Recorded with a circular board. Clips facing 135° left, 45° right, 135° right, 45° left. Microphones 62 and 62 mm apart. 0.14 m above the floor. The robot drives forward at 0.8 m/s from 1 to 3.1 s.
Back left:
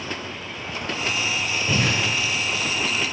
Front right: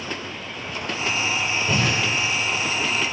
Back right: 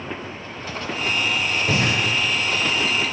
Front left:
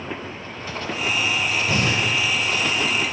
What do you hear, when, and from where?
1.7 s breathing: 135° right, 4 m